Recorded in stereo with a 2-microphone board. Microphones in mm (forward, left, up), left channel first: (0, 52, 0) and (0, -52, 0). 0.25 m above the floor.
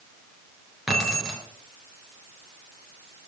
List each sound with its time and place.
0.9 s keys jangling: 5° right (ahead or behind), 3 m